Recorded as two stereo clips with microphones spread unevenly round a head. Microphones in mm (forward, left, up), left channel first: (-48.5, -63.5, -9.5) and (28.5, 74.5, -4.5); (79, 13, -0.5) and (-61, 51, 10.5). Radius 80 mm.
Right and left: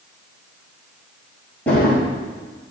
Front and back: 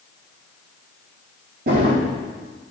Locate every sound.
1.7 s a drawer: 160° left, 6 m